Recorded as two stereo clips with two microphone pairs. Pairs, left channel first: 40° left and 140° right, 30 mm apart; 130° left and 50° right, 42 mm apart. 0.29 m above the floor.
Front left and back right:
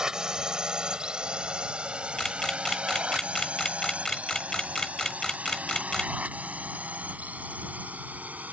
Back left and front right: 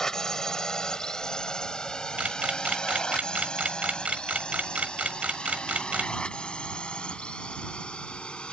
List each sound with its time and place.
0.0 s a drone: 175° right; by 8.5 s 170° right
2.2 s a camera shutter: 25° right